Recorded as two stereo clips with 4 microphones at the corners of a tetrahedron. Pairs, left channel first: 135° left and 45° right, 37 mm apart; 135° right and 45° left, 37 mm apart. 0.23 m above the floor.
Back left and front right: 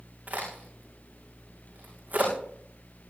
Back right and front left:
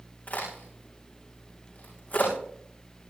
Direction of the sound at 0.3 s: 90° right.